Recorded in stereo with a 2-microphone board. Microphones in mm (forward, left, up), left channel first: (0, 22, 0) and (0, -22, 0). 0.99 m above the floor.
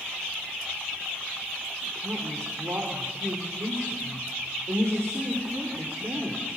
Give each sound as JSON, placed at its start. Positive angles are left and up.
{"t": 1.9, "sound": "a woman speaking", "side_deg": -80, "distance_m": 4.0}